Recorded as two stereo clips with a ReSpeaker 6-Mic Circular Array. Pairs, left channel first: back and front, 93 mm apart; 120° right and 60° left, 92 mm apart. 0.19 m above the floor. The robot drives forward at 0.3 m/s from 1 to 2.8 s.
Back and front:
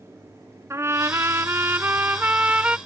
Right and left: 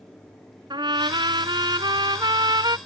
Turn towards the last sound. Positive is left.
turn(degrees=75)